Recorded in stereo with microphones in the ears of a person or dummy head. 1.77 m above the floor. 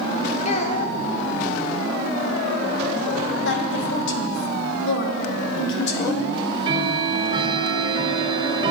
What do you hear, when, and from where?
0.5 s a child speaking: 45° left (ahead or behind), 1.0 m
3.4 s a woman speaking: 75° left (ahead or behind), 2 m
6.3 s ticking: 20° right (ahead or behind), 1.7 m